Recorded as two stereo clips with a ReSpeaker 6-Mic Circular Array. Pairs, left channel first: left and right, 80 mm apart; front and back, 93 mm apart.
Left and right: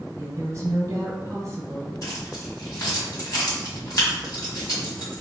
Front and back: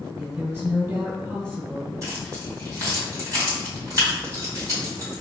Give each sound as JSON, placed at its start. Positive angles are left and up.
{"t": 0.2, "sound": "a woman speaking", "azimuth_deg": -120, "distance_m": 1.2}
{"t": 2.0, "sound": "keys jangling", "azimuth_deg": 130, "distance_m": 1.9}